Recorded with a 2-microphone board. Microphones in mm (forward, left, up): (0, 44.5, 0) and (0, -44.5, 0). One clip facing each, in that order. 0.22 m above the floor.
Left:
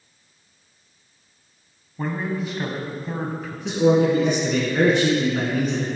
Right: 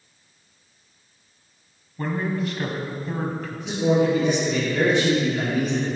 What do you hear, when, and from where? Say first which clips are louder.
2.0 s a man speaking: right 1 dB; 10° left (ahead or behind), 1.3 m
3.6 s a man speaking: left 3 dB; 55° left (ahead or behind), 2.0 m